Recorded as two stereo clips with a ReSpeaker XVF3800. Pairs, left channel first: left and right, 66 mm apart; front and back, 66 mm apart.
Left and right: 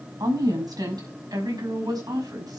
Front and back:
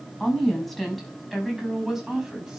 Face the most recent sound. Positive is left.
turn(degrees=-100)